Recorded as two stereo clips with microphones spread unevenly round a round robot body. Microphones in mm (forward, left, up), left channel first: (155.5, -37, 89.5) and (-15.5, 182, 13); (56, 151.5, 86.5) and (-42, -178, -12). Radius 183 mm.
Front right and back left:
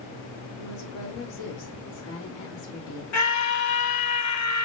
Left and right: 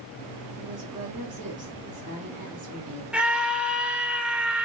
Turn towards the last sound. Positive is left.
turn(degrees=-35)